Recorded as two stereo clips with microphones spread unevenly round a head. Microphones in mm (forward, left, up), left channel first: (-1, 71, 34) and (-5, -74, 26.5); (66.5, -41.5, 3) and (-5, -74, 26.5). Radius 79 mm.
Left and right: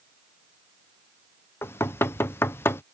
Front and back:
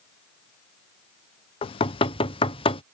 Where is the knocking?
15° left.